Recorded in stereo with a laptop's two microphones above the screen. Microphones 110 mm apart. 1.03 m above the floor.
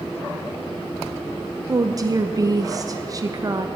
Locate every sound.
1.7 s a woman speaking: 35° right (ahead or behind), 0.5 m